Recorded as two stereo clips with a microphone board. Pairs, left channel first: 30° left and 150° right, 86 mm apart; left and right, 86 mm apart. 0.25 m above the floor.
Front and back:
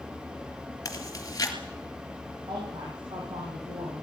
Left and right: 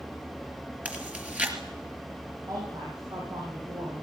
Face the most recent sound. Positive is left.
turn(degrees=-135)